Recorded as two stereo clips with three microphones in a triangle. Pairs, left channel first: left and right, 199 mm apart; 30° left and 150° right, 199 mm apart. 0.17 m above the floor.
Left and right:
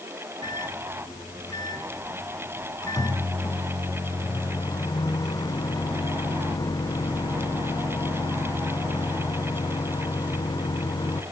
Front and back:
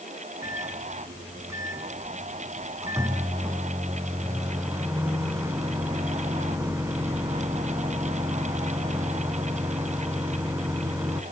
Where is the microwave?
145° left, 1.1 m.